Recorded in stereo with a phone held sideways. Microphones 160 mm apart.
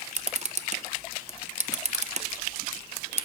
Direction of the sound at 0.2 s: 45° right (ahead or behind).